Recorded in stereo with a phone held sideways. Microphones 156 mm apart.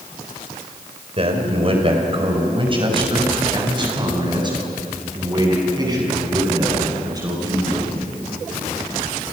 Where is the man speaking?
40° right (ahead or behind), 4 m; by 7.9 s 25° right (ahead or behind), 11 m.